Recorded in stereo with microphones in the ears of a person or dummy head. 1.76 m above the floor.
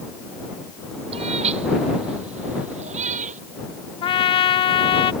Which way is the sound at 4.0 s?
30° left (ahead or behind).